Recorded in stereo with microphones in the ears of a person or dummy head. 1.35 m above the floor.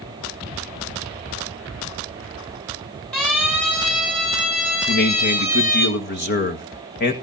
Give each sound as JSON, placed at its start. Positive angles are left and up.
{"t": 3.1, "sound": "a siren", "side_deg": 5, "distance_m": 9.5}
{"t": 4.9, "sound": "a man speaking", "side_deg": 50, "distance_m": 1.6}